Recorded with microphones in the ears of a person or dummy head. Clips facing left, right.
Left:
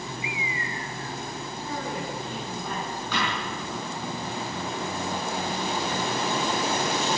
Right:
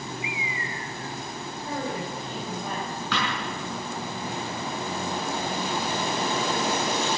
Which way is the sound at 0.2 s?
30° left (ahead or behind).